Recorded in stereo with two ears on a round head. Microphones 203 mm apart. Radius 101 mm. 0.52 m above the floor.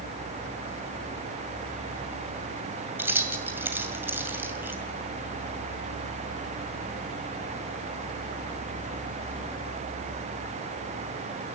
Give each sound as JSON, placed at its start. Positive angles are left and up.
{"t": 3.0, "sound": "keys jangling", "side_deg": -10, "distance_m": 2.0}